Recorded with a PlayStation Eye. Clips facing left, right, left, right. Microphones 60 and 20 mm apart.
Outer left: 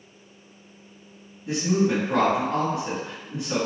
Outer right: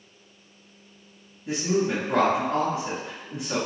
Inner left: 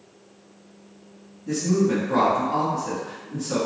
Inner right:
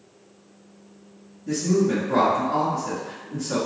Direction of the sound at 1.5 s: 10° right (ahead or behind).